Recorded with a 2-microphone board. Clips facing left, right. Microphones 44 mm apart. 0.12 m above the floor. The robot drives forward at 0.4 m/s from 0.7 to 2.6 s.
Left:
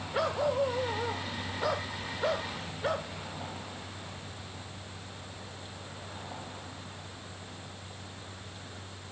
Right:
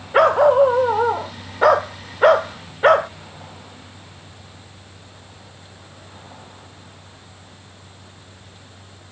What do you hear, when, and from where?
0.1 s a dog barking: 60° right (ahead or behind); by 3.1 s 65° right (ahead or behind)